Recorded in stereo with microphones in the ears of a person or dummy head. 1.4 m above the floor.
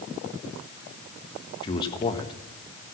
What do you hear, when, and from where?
1.6 s a man speaking: 25° left (ahead or behind), 1.6 m